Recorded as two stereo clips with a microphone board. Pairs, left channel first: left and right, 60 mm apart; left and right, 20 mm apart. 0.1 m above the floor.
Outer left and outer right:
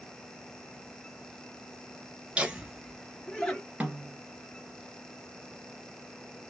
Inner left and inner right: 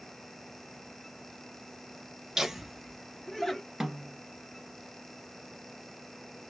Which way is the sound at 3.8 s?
20° right (ahead or behind).